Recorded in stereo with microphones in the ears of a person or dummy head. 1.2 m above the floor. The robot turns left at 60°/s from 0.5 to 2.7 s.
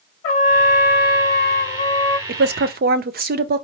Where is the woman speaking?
50° right (ahead or behind), 0.6 m; by 3.6 s 45° right (ahead or behind), 0.6 m.